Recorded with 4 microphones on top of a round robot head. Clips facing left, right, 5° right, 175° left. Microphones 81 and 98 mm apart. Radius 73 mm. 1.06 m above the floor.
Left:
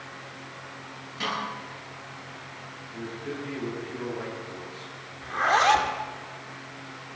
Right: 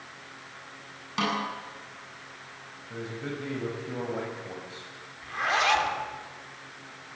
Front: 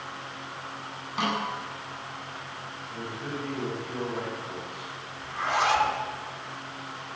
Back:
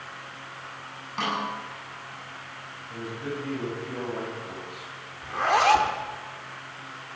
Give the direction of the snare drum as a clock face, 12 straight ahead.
3 o'clock.